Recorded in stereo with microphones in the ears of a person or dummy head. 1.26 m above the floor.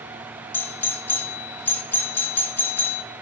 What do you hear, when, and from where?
0.5 s a doorbell: 10° left (ahead or behind), 1.5 m